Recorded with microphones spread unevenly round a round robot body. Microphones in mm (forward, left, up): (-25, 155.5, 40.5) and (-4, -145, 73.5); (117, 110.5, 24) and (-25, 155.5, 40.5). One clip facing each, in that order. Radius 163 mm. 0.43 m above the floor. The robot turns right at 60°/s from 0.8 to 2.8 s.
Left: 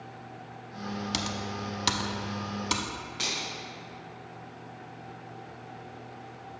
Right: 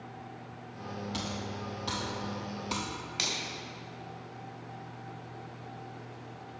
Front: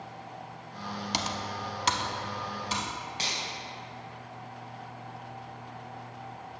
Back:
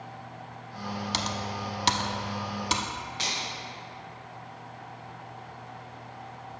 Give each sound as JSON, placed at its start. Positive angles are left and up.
{"t": 1.1, "sound": "typing on a keyboard", "azimuth_deg": 60, "distance_m": 0.7}
{"t": 3.2, "sound": "a finger snap", "azimuth_deg": -95, "distance_m": 2.0}